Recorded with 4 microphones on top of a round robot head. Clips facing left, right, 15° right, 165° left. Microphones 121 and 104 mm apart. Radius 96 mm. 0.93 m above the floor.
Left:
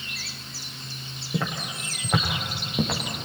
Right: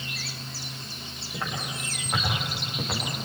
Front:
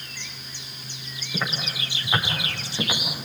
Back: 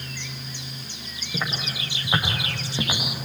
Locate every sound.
1.3 s footsteps: 80° left, 8.5 m; by 3.0 s 95° left, 7.5 m